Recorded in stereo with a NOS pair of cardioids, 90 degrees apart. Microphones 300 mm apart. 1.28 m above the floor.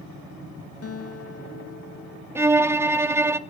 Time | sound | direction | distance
0.8 | a guitar | 50° left | 2 m
2.4 | a violin | 10° right | 1.0 m